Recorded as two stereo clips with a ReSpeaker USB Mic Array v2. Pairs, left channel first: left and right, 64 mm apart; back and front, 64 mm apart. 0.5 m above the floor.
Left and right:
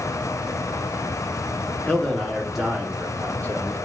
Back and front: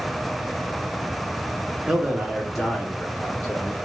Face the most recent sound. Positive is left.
turn(degrees=-115)